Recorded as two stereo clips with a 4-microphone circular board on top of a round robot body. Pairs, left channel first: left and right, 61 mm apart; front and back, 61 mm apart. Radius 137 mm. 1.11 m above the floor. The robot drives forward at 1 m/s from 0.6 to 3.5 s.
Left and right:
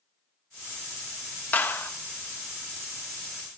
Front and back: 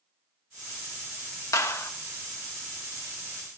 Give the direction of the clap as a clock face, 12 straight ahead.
11 o'clock.